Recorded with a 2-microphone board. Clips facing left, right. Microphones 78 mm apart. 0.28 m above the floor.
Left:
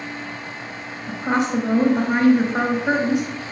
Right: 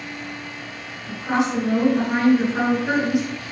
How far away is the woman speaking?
About 4.5 m.